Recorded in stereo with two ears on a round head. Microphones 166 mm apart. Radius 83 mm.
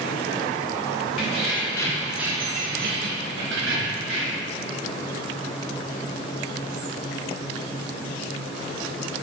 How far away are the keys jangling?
About 1.2 m.